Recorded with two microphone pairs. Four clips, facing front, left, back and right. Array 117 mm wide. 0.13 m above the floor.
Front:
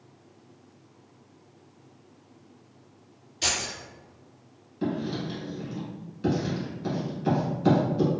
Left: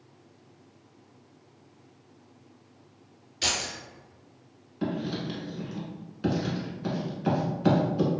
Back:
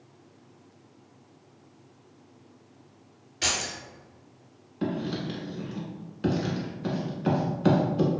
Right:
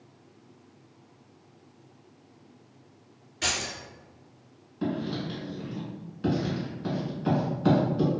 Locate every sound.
3.4 s keys jangling: 155° right, 1.1 m
4.8 s writing: 170° left, 0.9 m